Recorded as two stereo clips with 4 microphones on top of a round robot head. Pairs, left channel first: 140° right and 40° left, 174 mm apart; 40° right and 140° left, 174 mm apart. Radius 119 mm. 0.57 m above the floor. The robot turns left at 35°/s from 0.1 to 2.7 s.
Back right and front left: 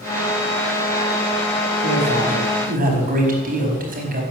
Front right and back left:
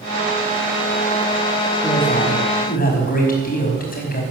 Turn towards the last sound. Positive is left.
turn(degrees=0)